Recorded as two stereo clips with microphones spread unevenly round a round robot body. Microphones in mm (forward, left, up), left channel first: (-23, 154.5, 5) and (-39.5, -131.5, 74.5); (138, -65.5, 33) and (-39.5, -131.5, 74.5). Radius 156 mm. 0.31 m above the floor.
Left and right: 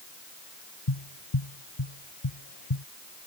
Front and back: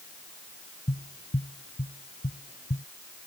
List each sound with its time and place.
0.9 s tapping: 90° left